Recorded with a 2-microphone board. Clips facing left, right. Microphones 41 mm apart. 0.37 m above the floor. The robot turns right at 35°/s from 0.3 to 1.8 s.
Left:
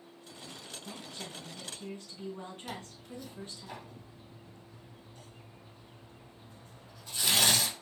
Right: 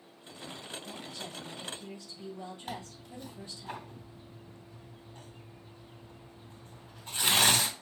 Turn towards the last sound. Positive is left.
turn(degrees=-40)  # may be behind; listen again after turning